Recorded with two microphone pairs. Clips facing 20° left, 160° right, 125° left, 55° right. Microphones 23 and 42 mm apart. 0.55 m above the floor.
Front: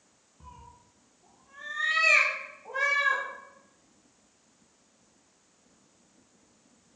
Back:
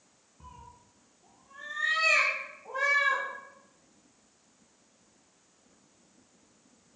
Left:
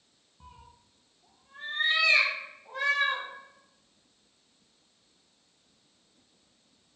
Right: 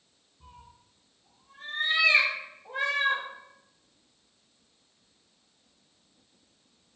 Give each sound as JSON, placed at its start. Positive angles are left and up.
{"t": 0.4, "sound": "a cat meowing", "azimuth_deg": 115, "distance_m": 1.3}